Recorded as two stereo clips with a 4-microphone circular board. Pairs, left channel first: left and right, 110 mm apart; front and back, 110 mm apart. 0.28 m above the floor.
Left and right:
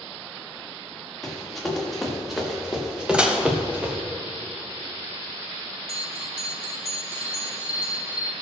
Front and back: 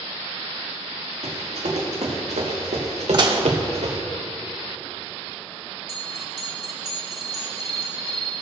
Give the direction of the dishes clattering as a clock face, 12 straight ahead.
6 o'clock.